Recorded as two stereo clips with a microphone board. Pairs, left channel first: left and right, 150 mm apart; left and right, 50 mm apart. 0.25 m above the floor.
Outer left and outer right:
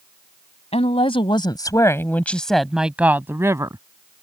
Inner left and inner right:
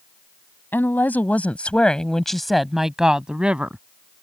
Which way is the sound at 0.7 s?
45° left (ahead or behind).